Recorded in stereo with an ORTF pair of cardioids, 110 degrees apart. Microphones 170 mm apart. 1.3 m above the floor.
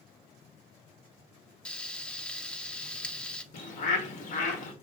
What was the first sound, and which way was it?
Frying, 5° left.